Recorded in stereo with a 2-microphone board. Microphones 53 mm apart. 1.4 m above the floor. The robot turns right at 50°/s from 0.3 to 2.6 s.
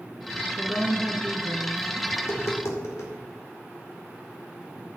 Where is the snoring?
I don't hear snoring.